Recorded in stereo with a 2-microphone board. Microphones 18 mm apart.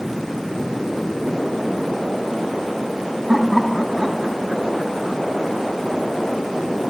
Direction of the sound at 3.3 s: 5° left (ahead or behind).